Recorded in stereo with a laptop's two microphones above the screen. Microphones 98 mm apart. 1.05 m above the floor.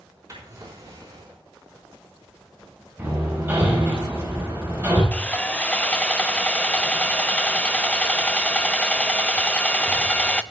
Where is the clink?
I don't hear a clink.